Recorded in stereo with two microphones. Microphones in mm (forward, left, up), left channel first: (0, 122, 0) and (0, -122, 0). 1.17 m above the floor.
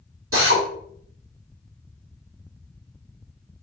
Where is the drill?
65° right (ahead or behind), 2 m.